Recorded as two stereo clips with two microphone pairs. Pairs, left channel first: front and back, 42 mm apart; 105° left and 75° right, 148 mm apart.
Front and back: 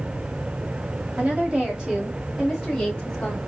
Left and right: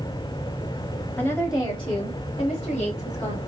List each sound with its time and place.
1.2 s a woman speaking: 175° left, 1.4 m; by 3.4 s 75° left, 2.5 m